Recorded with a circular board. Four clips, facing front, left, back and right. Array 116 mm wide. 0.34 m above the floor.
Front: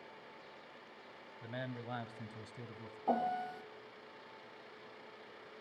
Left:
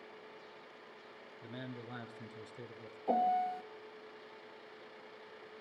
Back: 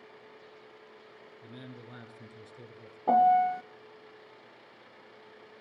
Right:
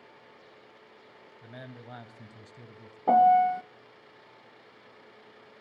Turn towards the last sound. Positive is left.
turn(degrees=-115)